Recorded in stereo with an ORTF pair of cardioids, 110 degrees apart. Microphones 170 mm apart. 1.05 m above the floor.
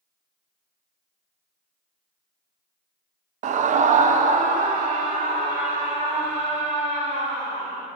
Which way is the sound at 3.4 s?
50° right.